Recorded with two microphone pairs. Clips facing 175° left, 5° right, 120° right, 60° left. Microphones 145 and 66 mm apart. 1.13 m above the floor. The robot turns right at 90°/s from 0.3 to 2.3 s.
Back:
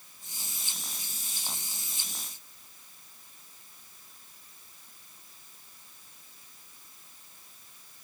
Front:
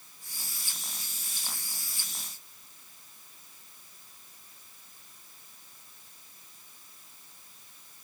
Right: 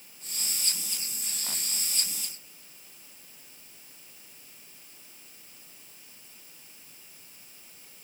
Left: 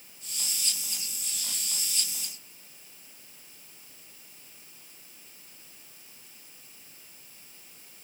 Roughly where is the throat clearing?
I don't hear throat clearing.